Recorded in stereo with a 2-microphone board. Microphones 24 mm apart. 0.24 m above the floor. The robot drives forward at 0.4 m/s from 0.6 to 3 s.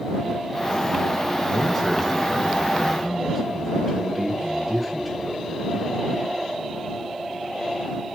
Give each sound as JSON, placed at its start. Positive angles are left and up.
{"t": 1.4, "sound": "a man speaking", "side_deg": -10, "distance_m": 2.5}